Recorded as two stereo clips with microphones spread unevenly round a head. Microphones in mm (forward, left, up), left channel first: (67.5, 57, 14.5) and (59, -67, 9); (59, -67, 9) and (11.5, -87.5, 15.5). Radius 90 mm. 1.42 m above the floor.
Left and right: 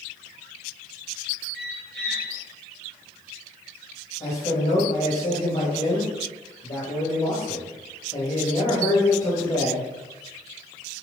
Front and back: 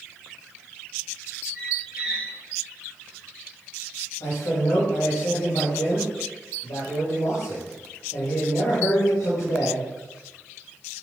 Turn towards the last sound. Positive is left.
turn(degrees=45)